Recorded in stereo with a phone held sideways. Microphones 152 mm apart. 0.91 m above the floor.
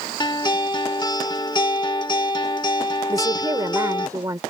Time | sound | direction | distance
0.2 | a guitar | 30° left (ahead or behind) | ?
3.1 | a woman speaking | 25° right (ahead or behind) | ?